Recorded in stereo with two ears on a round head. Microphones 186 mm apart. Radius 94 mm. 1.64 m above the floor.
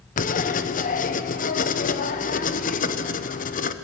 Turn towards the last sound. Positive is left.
turn(degrees=40)  # may be behind; listen again after turning